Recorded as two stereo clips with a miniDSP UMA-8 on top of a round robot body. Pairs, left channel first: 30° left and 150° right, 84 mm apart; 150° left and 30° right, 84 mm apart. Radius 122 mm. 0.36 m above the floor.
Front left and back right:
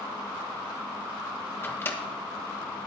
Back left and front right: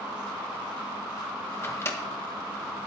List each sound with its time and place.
1.6 s a microwave: 90° left, 1.8 m